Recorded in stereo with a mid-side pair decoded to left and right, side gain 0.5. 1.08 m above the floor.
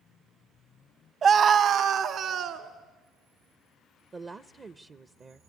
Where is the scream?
45° right, 1.0 m; by 2.7 s 65° right, 3 m.